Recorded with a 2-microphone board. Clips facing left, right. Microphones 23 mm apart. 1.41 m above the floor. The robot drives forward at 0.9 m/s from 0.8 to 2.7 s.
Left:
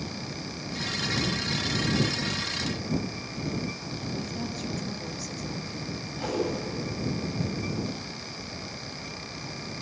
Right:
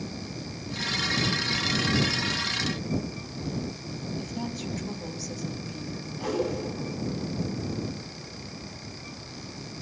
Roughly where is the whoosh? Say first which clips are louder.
Right 1 dB; left.